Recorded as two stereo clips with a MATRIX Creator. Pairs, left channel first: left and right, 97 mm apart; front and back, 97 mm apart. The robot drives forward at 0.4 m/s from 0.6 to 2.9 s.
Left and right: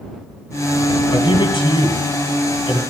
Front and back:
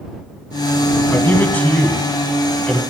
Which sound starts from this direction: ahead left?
A man speaking, at 1.1 s.